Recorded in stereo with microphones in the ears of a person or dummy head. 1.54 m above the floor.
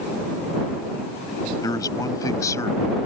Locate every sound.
1.6 s a man speaking: 20° left (ahead or behind); by 2.9 s 15° left (ahead or behind)